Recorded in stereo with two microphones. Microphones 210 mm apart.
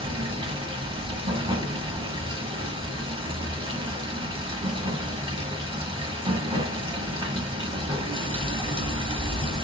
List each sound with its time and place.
0.0 s running water: 25° right (ahead or behind), 1.0 m